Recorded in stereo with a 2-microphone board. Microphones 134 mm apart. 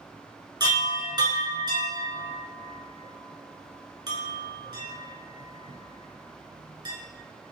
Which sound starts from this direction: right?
A chime, at 0.6 s.